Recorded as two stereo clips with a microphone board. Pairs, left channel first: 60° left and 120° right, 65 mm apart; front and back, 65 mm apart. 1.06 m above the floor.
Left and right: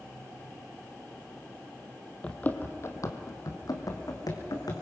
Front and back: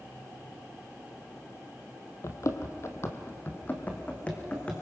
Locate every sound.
2.2 s running footsteps: 10° right, 1.5 m; by 4.7 s 70° left, 3.5 m